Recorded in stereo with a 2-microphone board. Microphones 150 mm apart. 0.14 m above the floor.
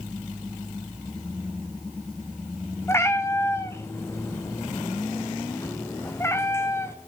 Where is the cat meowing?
20° left (ahead or behind), 0.7 m.